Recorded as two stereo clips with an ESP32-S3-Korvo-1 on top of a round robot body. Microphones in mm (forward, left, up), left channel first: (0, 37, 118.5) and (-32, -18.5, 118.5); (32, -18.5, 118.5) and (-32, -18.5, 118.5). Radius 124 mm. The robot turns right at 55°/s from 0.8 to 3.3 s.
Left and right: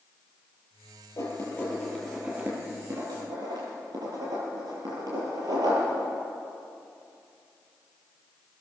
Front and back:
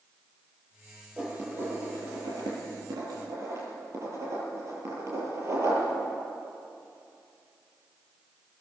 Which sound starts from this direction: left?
Writing, at 1.2 s.